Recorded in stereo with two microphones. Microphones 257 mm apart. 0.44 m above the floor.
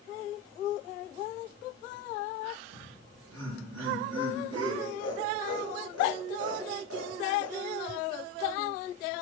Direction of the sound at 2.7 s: 80° right.